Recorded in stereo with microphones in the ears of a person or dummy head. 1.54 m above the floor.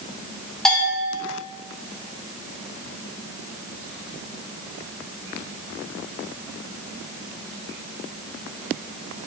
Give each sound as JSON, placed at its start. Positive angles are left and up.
{"t": 0.7, "sound": "a bell", "side_deg": 0, "distance_m": 2.5}